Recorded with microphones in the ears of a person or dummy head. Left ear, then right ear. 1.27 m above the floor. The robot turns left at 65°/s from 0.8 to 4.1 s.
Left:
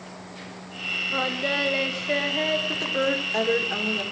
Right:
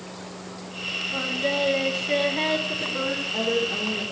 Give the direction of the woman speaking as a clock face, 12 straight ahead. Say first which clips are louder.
Left 2 dB; 8 o'clock.